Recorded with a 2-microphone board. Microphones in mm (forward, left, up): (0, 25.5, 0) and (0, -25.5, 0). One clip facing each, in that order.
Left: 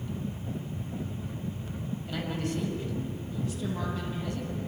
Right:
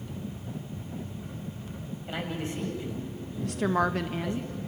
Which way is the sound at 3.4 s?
65° right (ahead or behind).